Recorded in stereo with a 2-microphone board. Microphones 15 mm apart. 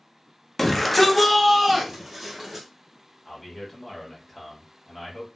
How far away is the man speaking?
About 1.3 m.